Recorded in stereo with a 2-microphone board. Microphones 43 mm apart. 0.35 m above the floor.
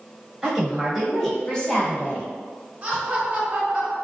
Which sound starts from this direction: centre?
A woman speaking, at 0.4 s.